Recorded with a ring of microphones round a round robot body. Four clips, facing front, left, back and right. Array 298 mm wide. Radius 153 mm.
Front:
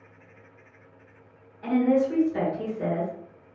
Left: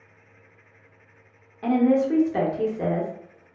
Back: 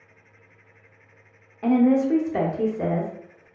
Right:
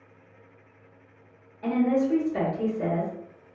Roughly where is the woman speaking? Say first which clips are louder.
Left 4 dB, back 3 dB; behind left.